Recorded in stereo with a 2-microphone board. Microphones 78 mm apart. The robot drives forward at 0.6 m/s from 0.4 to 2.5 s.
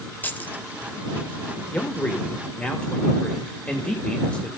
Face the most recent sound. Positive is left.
turn(degrees=15)  # may be behind; listen again after turning